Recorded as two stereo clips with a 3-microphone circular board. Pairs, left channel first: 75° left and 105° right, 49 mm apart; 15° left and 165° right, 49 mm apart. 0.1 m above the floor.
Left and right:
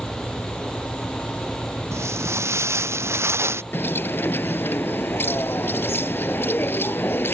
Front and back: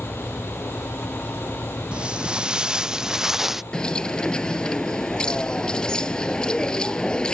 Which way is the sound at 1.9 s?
95° right.